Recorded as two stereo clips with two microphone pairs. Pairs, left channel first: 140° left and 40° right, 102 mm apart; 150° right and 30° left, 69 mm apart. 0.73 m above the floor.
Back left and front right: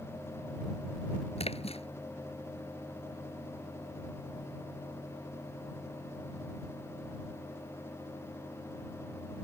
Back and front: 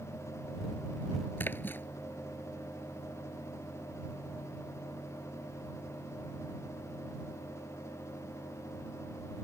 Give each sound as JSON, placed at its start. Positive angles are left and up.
{"t": 1.4, "sound": "a splash", "azimuth_deg": 150}